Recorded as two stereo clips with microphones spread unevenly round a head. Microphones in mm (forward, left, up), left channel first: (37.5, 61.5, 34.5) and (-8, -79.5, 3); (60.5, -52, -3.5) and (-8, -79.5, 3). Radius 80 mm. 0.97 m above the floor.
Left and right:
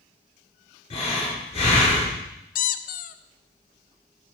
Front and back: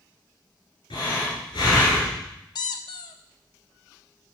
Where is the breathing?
25° left, 5.5 m.